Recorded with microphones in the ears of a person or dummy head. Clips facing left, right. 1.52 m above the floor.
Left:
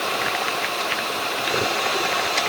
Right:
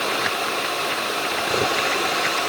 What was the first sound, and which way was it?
Only background noise.